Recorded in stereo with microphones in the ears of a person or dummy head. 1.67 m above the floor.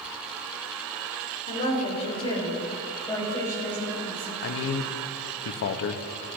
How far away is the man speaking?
About 0.7 m.